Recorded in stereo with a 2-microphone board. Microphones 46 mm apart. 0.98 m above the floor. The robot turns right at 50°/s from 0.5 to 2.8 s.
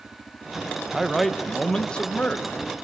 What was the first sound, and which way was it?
A man speaking, 10° right.